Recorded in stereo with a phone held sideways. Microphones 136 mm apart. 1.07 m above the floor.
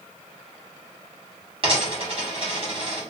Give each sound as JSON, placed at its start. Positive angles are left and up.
{"t": 1.6, "sound": "a dropped coin", "side_deg": -45, "distance_m": 1.4}